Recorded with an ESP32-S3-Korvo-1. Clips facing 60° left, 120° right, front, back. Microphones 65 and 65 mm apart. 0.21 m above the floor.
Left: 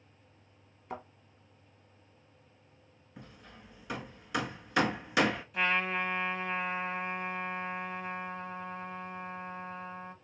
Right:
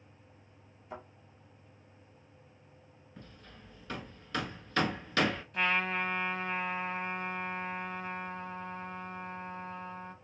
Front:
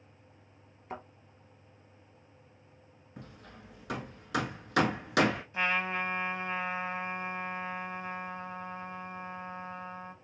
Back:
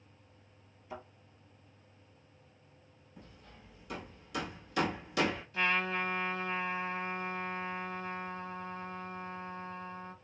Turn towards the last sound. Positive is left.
turn(degrees=-25)